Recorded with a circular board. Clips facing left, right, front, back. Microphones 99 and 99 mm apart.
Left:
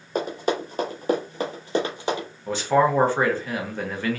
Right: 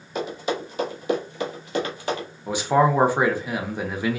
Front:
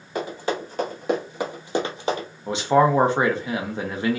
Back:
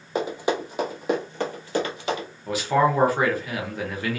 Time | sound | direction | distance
0.1 | running footsteps | 120° left | 1.5 m
2.5 | a man speaking | 30° right | 0.7 m